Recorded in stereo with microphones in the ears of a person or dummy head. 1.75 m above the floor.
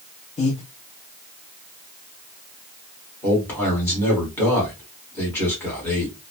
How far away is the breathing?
About 0.7 m.